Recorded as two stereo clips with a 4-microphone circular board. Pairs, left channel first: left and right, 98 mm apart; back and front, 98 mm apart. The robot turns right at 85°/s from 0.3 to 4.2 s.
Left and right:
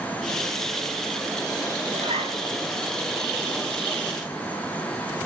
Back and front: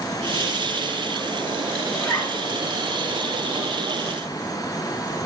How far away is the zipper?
About 5 m.